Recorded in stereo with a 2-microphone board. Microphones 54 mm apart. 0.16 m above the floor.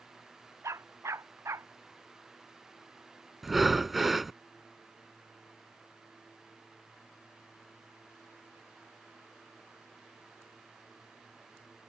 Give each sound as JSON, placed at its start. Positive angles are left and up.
{"t": 0.6, "sound": "a dog barking", "side_deg": -60}
{"t": 3.4, "sound": "breathing", "side_deg": -5}